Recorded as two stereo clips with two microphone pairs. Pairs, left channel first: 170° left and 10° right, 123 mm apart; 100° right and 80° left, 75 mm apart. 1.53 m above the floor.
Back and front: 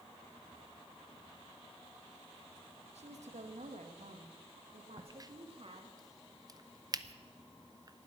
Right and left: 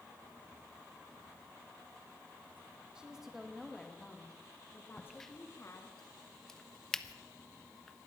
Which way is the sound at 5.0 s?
20° right.